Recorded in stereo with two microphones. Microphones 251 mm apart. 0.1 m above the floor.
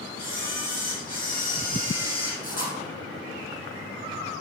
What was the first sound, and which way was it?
A camera shutter, 35° left (ahead or behind).